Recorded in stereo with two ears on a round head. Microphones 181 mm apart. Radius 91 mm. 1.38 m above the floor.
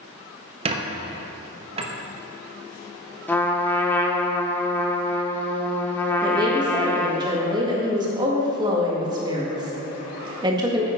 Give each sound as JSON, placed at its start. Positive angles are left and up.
{"t": 0.7, "sound": "a squeak", "side_deg": -30, "distance_m": 0.9}
{"t": 3.3, "sound": "a trumpet", "side_deg": 10, "distance_m": 0.9}
{"t": 6.2, "sound": "a woman speaking", "side_deg": -20, "distance_m": 1.9}